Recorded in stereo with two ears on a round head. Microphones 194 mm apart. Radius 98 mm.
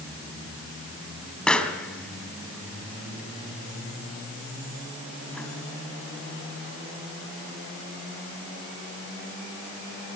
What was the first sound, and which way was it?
A pop, 5° left (ahead or behind).